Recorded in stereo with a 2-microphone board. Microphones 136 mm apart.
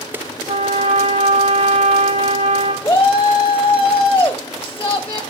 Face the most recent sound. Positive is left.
turn(degrees=15)  # may be behind; listen again after turning